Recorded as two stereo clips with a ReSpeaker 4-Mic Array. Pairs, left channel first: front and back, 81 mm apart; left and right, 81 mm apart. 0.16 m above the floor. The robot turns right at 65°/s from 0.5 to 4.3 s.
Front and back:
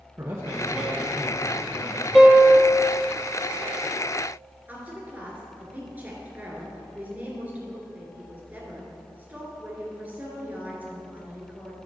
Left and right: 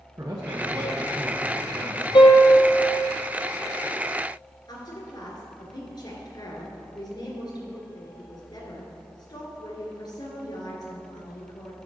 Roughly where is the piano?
Left.